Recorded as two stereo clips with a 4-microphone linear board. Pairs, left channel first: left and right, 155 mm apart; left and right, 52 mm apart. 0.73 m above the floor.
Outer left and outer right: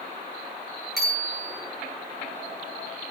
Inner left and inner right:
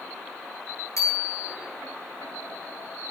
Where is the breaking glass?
No breaking glass in this recording.